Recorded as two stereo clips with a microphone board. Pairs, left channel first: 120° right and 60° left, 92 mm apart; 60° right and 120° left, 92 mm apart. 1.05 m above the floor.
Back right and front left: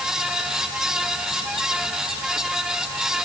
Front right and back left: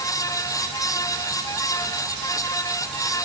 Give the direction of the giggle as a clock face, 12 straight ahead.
No giggle in this recording.